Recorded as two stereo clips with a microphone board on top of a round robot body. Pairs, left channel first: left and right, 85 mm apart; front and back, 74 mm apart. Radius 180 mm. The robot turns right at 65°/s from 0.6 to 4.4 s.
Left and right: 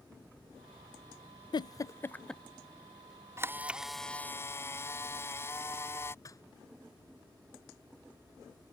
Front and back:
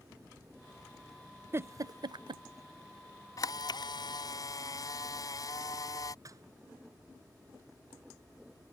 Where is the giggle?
120° left; by 2.4 s straight behind.